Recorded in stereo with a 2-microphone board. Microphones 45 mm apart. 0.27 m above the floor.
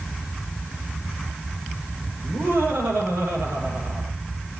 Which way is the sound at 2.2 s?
80° right.